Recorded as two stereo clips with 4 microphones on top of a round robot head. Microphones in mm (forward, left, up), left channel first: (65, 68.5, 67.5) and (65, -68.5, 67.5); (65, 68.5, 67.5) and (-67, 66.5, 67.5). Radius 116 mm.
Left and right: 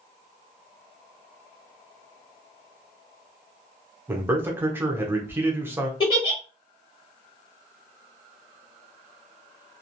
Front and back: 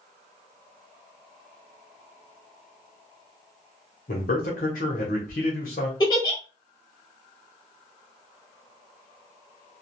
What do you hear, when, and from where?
4.1 s a man speaking: 20° right, 0.9 m
6.0 s a giggle: 50° left, 1.2 m